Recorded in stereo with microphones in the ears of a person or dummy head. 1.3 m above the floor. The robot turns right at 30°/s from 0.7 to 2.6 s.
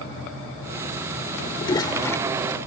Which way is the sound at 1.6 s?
25° left (ahead or behind).